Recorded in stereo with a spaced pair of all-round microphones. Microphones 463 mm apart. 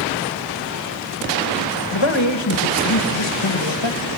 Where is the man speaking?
70° left (ahead or behind), 1.5 m.